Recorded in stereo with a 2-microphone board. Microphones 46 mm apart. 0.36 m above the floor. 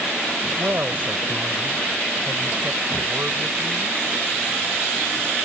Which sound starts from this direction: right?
A woman speaking, at 0.6 s.